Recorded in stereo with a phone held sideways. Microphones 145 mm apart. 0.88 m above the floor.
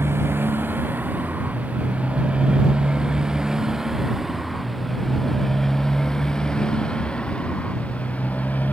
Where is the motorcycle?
15° right (ahead or behind); by 8.7 s 10° left (ahead or behind).